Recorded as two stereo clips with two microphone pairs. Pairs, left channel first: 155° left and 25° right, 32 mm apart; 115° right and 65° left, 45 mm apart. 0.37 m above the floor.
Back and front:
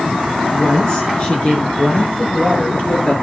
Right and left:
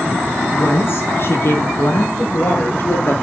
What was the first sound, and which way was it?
A woman speaking, 150° right.